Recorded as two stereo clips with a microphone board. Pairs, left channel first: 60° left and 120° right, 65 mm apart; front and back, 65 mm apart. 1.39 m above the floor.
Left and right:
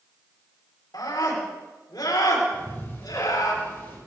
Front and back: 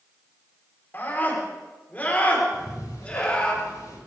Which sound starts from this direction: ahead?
Ticking, at 2.5 s.